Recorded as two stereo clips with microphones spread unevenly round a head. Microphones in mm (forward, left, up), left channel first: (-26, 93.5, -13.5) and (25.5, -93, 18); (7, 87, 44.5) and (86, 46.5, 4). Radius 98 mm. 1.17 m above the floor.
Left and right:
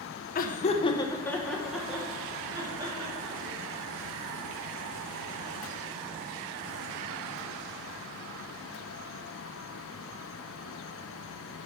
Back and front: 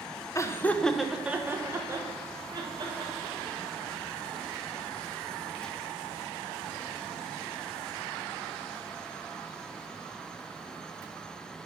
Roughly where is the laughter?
Left.